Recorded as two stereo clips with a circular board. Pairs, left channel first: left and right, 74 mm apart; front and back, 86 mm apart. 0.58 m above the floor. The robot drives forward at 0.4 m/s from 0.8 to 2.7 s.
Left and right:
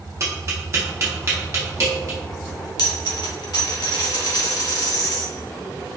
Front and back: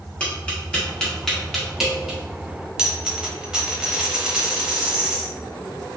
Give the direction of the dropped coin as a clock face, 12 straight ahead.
9 o'clock.